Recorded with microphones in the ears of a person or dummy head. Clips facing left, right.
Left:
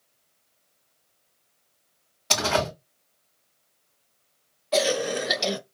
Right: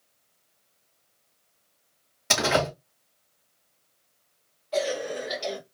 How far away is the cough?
About 0.8 m.